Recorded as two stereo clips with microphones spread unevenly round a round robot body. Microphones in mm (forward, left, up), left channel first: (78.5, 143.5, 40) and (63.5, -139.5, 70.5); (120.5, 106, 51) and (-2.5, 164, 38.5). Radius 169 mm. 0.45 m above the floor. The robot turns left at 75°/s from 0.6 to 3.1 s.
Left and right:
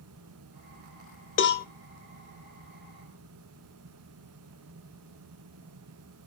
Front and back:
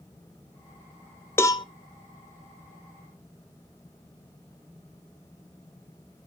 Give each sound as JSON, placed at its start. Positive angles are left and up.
{"t": 1.4, "sound": "a cowbell", "azimuth_deg": 50, "distance_m": 1.0}